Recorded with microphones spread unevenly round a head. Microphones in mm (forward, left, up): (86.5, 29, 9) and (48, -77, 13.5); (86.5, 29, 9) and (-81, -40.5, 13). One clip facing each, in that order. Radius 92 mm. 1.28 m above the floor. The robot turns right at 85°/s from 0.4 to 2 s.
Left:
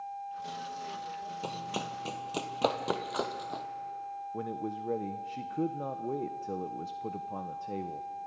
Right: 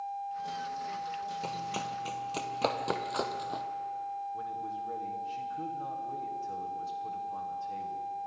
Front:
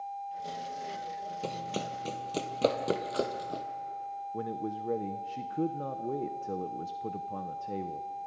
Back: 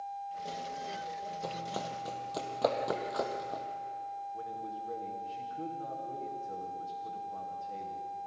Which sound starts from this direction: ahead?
Running footsteps, at 1.4 s.